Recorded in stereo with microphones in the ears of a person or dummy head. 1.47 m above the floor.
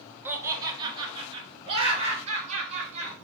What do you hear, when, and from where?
0.2 s laughter: 5° right (ahead or behind), 0.5 m; by 3.1 s 35° right (ahead or behind), 1.9 m